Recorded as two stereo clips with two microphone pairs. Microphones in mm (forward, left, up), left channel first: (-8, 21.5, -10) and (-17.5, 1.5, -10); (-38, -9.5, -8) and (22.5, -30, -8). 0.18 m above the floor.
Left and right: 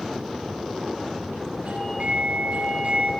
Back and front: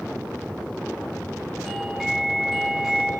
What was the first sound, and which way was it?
A doorbell, 105° right.